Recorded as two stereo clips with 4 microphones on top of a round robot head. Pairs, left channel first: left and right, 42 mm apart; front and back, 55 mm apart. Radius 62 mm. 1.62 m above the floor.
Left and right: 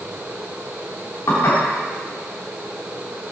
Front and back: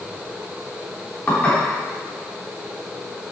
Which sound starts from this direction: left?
Dishes clattering, at 1.3 s.